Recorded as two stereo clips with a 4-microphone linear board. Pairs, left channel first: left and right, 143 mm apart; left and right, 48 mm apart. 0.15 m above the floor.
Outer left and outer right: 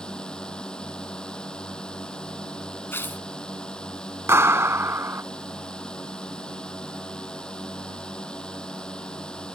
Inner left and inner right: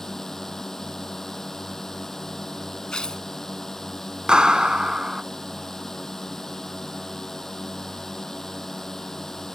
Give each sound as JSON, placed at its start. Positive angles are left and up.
{"t": 0.0, "sound": "a drone", "side_deg": 5}
{"t": 2.9, "sound": "tearing paper", "side_deg": 15}
{"t": 4.3, "sound": "a clap", "side_deg": -20}